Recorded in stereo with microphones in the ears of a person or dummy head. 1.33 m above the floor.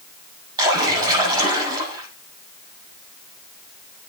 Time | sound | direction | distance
0.6 | a splash | 20° right (ahead or behind) | 8 m